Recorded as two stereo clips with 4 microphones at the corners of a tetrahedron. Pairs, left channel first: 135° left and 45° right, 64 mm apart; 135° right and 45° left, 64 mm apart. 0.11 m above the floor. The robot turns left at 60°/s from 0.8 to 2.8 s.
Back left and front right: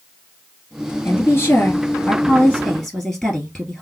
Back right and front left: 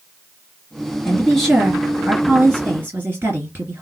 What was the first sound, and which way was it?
A woman speaking, 165° left.